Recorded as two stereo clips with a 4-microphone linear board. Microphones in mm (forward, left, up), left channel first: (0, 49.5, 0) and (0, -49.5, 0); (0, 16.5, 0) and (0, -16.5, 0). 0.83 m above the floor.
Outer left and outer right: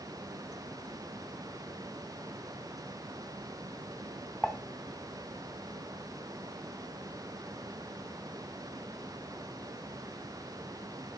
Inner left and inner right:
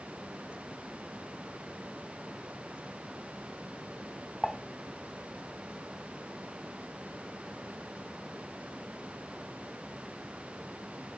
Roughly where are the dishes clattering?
Centre.